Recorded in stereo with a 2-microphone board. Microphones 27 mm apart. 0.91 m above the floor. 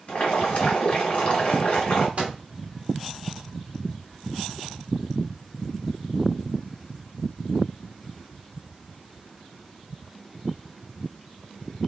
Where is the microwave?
40° right (ahead or behind), 0.8 m.